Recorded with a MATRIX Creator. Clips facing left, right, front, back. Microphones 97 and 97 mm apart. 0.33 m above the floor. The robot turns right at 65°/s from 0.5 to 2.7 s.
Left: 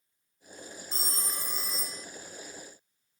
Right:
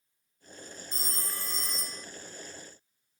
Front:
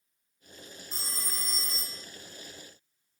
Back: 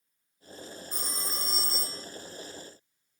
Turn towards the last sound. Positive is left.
turn(degrees=-130)